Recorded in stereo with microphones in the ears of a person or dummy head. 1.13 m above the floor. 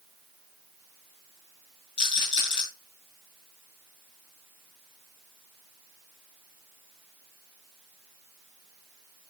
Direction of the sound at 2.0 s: 25° left (ahead or behind).